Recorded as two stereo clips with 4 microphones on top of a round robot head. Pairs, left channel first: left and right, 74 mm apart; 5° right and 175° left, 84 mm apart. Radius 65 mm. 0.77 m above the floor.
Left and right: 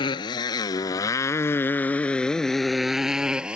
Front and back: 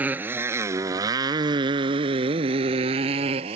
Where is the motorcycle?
105° left; by 3.6 s 165° right.